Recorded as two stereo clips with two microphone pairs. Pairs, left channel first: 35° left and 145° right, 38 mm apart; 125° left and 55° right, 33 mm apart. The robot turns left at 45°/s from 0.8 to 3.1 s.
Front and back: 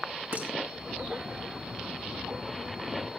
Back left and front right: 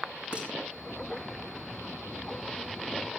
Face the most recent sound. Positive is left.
turn(degrees=145)